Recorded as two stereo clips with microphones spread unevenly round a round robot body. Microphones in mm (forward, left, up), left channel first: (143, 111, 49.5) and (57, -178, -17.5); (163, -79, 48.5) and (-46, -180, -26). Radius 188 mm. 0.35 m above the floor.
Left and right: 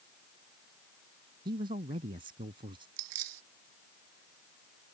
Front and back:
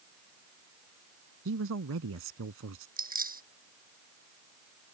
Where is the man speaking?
Straight behind.